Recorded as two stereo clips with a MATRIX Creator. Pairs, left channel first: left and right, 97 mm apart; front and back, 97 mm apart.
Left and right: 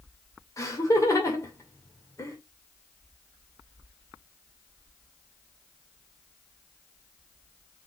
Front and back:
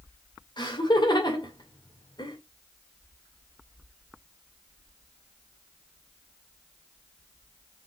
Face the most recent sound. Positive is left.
turn(degrees=35)